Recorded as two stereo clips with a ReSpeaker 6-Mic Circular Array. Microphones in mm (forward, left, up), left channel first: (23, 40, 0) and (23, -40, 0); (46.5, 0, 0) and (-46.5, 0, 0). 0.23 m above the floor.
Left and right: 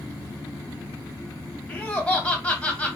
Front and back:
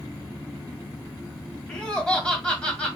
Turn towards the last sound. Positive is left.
turn(degrees=60)